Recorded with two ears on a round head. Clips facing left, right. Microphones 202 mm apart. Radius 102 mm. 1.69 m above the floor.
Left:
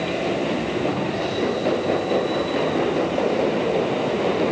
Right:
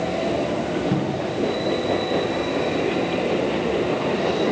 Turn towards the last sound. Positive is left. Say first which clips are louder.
# right 1 dB
turn(degrees=-65)  # may be behind; listen again after turning